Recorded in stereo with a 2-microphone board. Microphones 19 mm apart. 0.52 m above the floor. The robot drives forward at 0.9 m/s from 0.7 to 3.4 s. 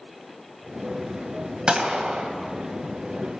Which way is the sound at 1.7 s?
50° right (ahead or behind).